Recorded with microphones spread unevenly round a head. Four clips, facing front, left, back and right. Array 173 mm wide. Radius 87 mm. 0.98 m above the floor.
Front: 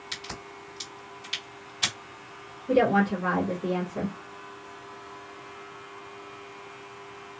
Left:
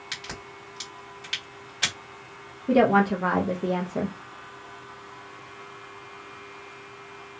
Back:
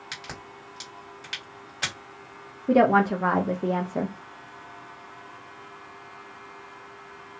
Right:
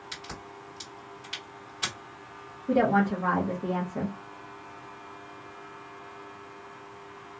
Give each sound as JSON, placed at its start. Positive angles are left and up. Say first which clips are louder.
{"t": 0.1, "sound": "a crack", "louder": "left 3 dB, front 1 dB", "azimuth_deg": 140, "distance_m": 2.0}
{"t": 2.7, "sound": "a woman speaking", "louder": "left 4 dB, back 3 dB", "azimuth_deg": 150, "distance_m": 0.7}